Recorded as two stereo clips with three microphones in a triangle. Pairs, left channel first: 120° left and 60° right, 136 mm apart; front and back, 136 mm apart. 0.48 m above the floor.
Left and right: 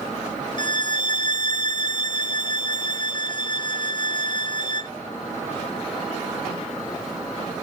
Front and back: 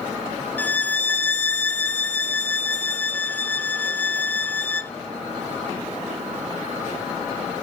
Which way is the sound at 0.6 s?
75° left.